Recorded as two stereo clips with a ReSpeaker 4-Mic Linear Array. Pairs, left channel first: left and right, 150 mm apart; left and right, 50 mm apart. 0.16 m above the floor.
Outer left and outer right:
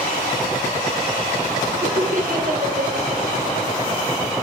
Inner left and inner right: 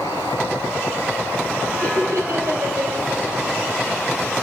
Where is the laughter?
65° right (ahead or behind), 2.5 m.